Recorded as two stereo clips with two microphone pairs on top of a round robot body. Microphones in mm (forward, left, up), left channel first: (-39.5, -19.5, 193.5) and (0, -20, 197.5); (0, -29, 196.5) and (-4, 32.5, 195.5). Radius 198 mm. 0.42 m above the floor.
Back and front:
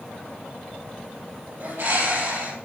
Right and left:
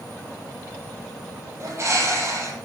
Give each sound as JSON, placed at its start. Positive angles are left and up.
{"t": 1.6, "sound": "a bird", "azimuth_deg": 40, "distance_m": 4.5}